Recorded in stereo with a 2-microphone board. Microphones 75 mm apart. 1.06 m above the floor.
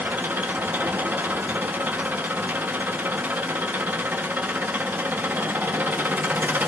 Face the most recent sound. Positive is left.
turn(degrees=-25)  # may be behind; listen again after turning